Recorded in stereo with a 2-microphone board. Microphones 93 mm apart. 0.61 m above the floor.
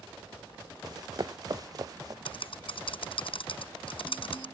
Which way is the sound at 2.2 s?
65° left (ahead or behind).